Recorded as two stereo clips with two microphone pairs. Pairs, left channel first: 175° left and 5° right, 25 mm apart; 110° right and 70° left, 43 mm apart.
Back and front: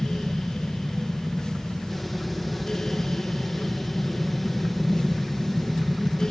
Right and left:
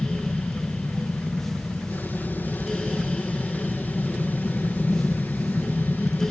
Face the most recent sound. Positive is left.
turn(degrees=-95)